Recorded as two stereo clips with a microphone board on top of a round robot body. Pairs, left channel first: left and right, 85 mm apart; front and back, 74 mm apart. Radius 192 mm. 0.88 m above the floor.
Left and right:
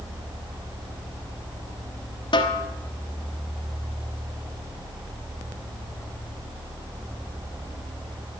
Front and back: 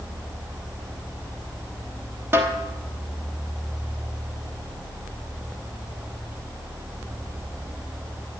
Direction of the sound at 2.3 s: 120° left.